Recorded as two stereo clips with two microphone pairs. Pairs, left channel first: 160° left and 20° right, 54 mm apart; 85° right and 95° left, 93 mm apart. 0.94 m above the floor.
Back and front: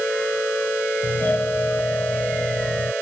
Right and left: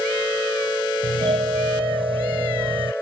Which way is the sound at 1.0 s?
100° left.